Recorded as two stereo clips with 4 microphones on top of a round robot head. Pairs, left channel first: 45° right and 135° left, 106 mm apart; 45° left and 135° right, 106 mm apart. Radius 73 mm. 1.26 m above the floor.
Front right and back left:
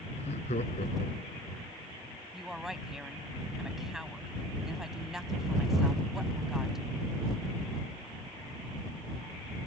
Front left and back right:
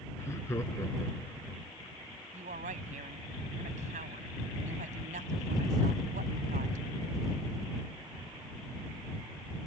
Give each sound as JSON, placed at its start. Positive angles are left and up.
{"t": 0.1, "sound": "laughter", "azimuth_deg": -20}
{"t": 2.3, "sound": "a woman speaking", "azimuth_deg": -140}